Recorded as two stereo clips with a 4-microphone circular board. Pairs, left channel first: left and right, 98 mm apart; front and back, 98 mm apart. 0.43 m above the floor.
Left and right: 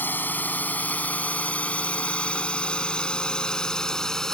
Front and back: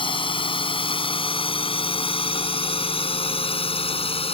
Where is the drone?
20° left; by 4.3 s 5° left.